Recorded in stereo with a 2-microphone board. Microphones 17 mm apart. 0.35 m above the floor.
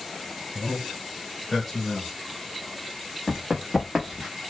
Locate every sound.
0.6 s a man speaking: 10° right (ahead or behind), 1.1 m; by 2.1 s 25° left (ahead or behind), 0.9 m
3.3 s running footsteps: 50° right (ahead or behind), 1.0 m; by 4.3 s 15° right (ahead or behind), 1.0 m